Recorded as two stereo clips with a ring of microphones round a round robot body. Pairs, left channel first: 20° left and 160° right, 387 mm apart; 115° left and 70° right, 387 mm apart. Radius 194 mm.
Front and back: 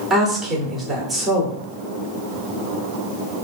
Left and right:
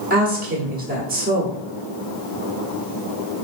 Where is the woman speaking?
70° right, 1.1 m.